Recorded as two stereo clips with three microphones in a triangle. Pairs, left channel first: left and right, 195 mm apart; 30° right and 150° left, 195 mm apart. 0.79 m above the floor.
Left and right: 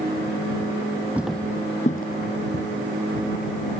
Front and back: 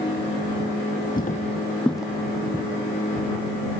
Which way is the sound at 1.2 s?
10° right.